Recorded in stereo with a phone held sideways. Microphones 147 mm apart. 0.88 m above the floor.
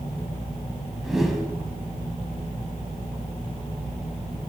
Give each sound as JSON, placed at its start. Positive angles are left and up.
{"t": 1.0, "sound": "a whoosh", "side_deg": 0, "distance_m": 1.2}